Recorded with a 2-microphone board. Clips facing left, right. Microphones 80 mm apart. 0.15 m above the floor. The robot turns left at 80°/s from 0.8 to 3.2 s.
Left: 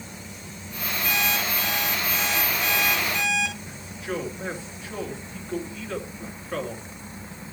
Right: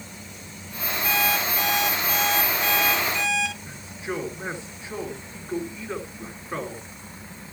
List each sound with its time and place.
1.0 s an alarm clock: 15° right, 5.5 m; by 3.5 s 175° left, 5.5 m
3.6 s a man speaking: 20° right (ahead or behind), 2.5 m